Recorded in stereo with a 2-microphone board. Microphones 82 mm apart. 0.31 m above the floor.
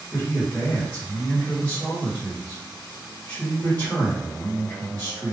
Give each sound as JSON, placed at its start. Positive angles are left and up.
{"t": 0.1, "sound": "a man speaking", "side_deg": 25, "distance_m": 1.3}